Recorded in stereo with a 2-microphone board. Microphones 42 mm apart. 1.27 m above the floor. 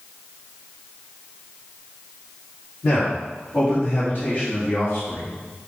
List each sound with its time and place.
2.8 s a man speaking: 55° left (ahead or behind), 3.5 m